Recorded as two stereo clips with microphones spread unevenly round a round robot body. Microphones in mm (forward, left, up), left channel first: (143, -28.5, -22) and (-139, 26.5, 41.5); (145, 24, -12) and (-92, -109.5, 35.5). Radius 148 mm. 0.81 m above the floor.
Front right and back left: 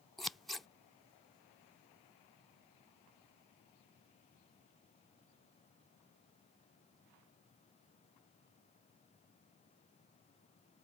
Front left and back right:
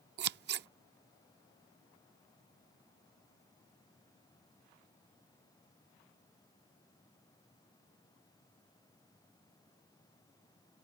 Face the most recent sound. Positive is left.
turn(degrees=-105)